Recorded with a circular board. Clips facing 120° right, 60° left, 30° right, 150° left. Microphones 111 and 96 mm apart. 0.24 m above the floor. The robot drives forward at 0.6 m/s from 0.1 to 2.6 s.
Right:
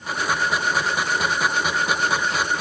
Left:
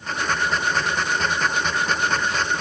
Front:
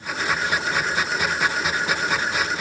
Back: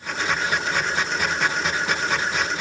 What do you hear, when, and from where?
Only background noise.